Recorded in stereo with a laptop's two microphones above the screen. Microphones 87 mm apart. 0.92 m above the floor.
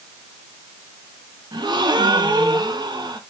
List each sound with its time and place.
1.5 s a gasp: 60° right (ahead or behind), 0.9 m